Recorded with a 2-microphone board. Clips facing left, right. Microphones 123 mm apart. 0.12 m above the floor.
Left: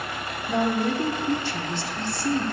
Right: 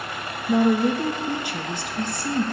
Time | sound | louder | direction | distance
0.5 | a woman speaking | right 5 dB | 15° right (ahead or behind) | 3.5 m